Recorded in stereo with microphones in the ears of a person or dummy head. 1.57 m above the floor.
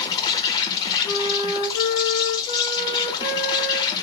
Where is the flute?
35° left (ahead or behind), 0.7 m.